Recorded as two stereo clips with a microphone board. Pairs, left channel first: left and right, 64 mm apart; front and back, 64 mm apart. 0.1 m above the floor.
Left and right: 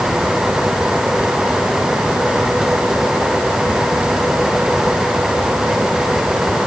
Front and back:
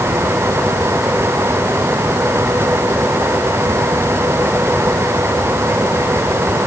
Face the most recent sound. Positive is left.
No sound to turn to.